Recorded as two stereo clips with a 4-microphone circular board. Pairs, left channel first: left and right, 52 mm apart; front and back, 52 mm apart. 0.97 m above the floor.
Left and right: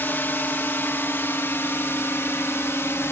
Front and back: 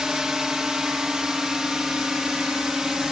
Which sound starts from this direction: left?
A drone, at 0.0 s.